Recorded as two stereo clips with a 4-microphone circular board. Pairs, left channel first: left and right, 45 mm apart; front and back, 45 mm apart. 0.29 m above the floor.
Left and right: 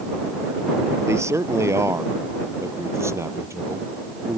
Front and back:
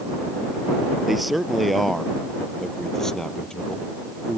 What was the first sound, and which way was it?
A man speaking, 95° right.